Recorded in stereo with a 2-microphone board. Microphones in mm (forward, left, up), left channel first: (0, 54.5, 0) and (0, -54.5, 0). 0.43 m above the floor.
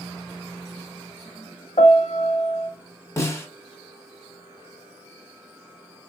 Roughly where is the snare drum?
Left.